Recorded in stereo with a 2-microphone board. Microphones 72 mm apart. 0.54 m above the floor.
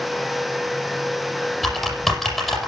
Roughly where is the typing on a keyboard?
Centre.